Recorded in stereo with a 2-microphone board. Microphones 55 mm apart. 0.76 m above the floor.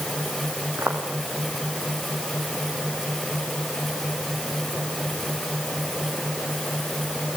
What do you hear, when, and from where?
0.8 s footsteps: 50° right (ahead or behind), 3 m